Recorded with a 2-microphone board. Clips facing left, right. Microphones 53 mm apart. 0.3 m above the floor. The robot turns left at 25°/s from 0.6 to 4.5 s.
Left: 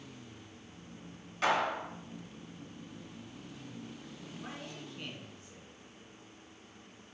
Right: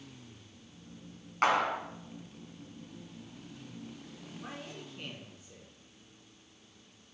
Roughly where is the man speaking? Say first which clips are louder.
Right 1 dB; centre.